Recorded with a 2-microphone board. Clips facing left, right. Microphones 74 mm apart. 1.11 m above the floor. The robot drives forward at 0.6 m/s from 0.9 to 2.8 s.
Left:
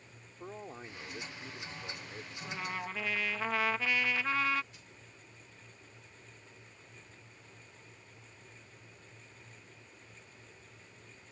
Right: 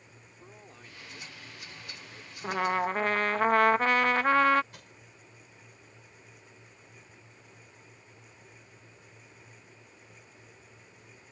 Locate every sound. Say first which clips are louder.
0.4 s a man speaking: left 8 dB; 30° left (ahead or behind); by 2.3 s 25° left (ahead or behind)
2.4 s a trumpet: right 12 dB; 65° right (ahead or behind); by 4.6 s 50° right (ahead or behind)
4.7 s crushing: right 5 dB; 70° right (ahead or behind)